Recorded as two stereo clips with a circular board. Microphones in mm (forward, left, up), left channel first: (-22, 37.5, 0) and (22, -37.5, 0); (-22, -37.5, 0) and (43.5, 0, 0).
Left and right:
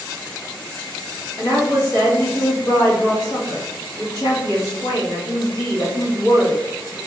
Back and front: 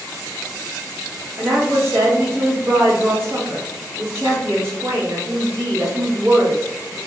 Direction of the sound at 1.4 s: 80° left.